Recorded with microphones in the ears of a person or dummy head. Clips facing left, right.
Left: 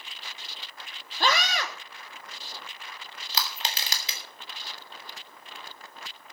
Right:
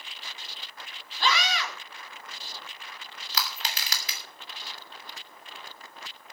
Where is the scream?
40° left (ahead or behind), 3 m.